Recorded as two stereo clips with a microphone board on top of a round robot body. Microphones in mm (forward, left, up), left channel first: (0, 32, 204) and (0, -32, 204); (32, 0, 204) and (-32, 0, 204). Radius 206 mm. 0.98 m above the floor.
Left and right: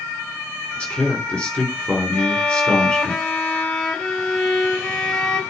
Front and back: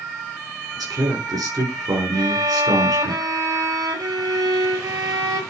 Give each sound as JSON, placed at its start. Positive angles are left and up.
{"t": 0.8, "sound": "a man speaking", "azimuth_deg": 165, "distance_m": 4.0}
{"t": 2.1, "sound": "a violin", "azimuth_deg": 170, "distance_m": 1.9}